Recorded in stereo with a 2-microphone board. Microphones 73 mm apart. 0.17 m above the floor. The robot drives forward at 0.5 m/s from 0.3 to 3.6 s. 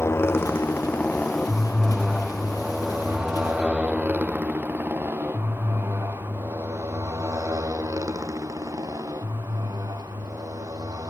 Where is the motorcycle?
40° left (ahead or behind); by 11.1 s 55° right (ahead or behind).